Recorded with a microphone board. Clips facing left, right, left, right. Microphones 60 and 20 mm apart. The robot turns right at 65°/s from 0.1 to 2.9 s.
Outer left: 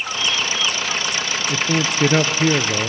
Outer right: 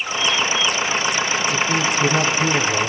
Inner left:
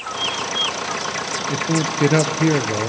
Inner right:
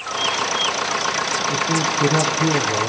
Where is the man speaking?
45° left, 2.5 m; by 2.9 s 140° left, 2.5 m.